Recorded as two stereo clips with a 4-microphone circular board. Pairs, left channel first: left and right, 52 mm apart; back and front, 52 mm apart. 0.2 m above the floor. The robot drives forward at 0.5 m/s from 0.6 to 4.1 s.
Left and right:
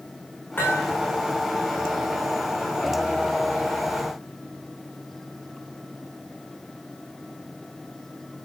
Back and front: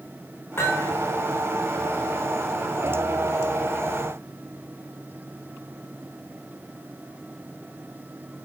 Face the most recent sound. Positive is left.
turn(degrees=150)